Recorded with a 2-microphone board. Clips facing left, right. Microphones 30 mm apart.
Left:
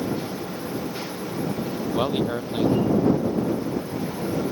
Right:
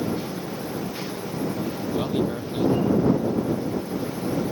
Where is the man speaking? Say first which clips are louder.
Left 1 dB; 35° left (ahead or behind).